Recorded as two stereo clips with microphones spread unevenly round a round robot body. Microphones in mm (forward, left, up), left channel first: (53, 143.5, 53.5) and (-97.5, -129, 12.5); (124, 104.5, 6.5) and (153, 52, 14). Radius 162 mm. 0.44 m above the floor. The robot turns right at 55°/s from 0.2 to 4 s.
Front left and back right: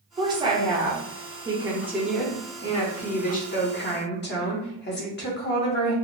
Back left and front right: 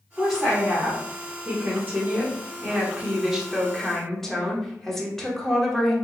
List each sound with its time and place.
0.2 s a woman speaking: 155° right, 1.2 m; by 6.0 s 55° left, 1.2 m